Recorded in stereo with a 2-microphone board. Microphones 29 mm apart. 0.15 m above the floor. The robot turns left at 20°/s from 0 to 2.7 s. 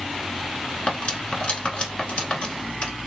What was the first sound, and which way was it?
Cutlery clinking, 40° left (ahead or behind).